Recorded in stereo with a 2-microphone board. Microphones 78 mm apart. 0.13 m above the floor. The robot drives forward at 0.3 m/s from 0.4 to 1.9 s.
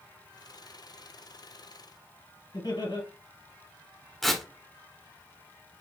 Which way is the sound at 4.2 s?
Centre (ahead or behind).